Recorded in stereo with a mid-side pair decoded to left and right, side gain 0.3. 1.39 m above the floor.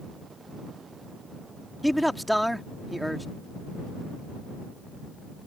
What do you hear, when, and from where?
1.8 s a man speaking: 5° left